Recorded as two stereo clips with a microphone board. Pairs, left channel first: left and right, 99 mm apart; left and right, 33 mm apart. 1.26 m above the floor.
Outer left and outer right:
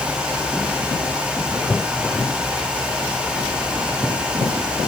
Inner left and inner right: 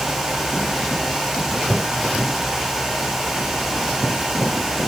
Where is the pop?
No pop in this recording.